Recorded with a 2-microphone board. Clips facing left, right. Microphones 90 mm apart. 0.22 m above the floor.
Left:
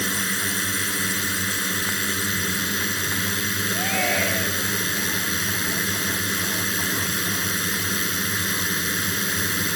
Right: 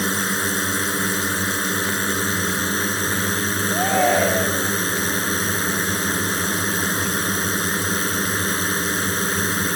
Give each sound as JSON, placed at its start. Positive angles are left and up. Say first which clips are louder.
{"t": 0.0, "sound": "a drone", "louder": "right 4 dB", "side_deg": -35}
{"t": 3.7, "sound": "a shout", "louder": "right 8 dB", "side_deg": -40}